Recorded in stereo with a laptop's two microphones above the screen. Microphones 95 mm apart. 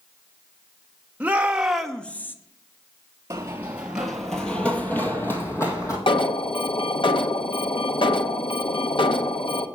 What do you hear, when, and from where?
1.2 s a shout: 15° right (ahead or behind), 1.0 m; by 2.4 s 25° left (ahead or behind), 0.7 m
3.3 s running footsteps: 30° right (ahead or behind), 1.5 m; by 6.0 s 35° left (ahead or behind), 2.5 m
6.1 s an alarm: 60° left (ahead or behind), 0.8 m